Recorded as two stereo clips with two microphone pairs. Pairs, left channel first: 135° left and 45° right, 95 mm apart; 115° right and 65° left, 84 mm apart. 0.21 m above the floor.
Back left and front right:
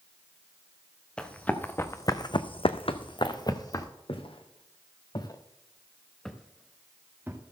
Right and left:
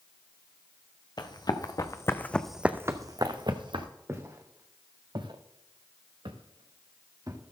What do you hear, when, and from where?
1.2 s running footsteps: 145° right, 1.6 m; by 3.9 s 85° left, 1.6 m
4.1 s footsteps: 120° left, 1.9 m; by 7.4 s 20° left, 2.0 m